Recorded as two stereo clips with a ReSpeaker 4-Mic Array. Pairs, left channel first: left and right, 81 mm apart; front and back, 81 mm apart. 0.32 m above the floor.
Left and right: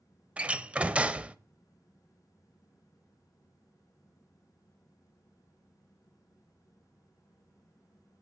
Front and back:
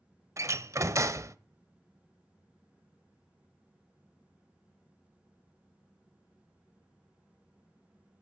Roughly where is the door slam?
Behind right.